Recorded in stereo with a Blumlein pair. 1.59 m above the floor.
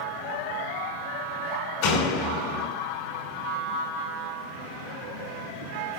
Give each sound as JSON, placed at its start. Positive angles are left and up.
{"t": 1.8, "sound": "a door slam", "azimuth_deg": 45, "distance_m": 4.5}